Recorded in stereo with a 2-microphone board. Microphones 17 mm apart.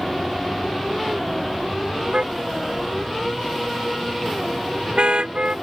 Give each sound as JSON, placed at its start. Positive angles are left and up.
{"t": 2.1, "sound": "a car horn", "side_deg": -70}